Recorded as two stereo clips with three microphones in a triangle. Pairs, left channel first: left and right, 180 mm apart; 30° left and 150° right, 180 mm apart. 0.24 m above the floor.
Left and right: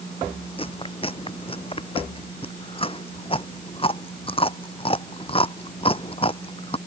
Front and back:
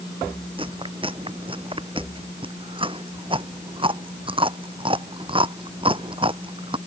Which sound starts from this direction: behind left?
Chewing, at 0.6 s.